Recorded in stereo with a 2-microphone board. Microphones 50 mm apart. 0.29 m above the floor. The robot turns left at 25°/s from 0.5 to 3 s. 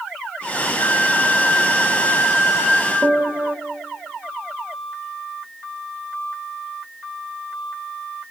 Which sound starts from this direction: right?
A piano, at 3.0 s.